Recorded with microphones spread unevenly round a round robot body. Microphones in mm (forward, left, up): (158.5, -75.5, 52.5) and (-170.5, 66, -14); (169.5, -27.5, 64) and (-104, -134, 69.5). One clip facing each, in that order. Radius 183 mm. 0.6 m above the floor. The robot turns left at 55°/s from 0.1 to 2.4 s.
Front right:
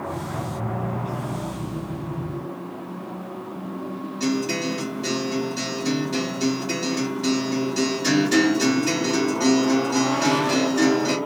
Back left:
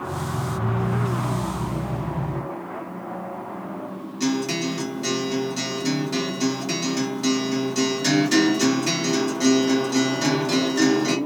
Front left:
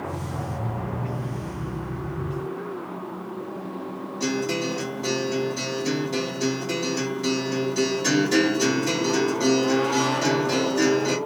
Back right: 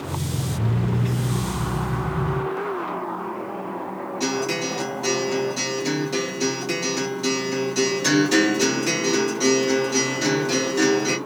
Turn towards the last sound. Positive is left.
turn(degrees=135)